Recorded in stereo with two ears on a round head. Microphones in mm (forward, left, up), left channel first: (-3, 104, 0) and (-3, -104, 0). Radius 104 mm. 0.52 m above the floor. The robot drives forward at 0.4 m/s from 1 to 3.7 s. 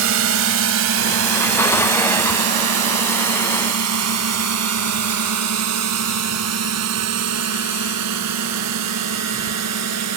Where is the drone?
60° right (ahead or behind); by 10.2 s 80° right.